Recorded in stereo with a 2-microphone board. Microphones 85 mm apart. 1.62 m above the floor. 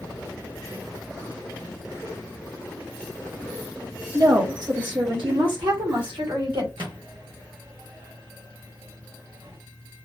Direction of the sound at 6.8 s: 65° right (ahead or behind).